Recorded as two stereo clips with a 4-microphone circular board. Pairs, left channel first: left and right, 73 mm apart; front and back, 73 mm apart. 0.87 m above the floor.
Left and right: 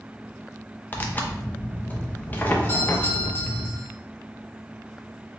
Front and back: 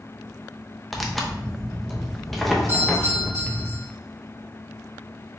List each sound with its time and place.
0.9 s tearing paper: 85° left, 0.6 m
2.7 s a doorbell: 140° left, 2 m